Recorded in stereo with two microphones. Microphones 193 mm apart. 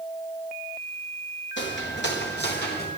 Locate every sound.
1.6 s footsteps: 70° left (ahead or behind), 4 m; by 2.9 s 55° left (ahead or behind), 4 m